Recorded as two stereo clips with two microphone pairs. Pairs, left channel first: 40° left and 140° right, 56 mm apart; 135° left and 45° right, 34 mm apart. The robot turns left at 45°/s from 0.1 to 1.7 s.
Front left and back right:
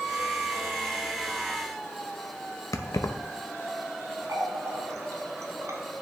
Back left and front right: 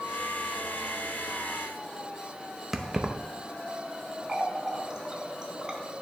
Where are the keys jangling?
30° left, 0.5 m.